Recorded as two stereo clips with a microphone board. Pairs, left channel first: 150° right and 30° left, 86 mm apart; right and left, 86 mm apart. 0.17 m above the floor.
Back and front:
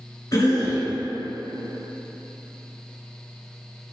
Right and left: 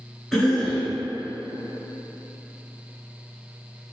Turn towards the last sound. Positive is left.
turn(degrees=-175)